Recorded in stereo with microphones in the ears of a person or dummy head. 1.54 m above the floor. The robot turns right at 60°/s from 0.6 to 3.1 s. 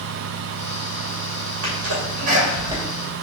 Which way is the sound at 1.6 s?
85° right.